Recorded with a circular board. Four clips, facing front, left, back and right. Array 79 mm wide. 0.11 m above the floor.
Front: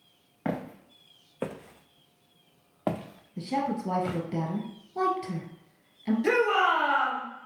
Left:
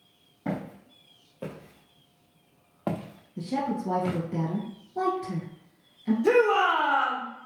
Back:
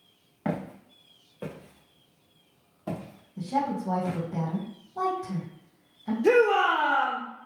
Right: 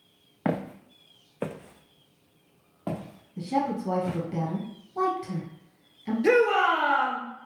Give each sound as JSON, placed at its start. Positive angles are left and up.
{"t": 0.5, "sound": "footsteps", "azimuth_deg": -80, "distance_m": 0.9}
{"t": 3.4, "sound": "a woman speaking", "azimuth_deg": -15, "distance_m": 1.4}
{"t": 6.2, "sound": "a shout", "azimuth_deg": -60, "distance_m": 1.9}